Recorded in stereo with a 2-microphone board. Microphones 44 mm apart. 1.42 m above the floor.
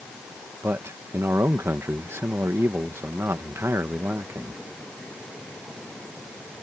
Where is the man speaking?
85° right.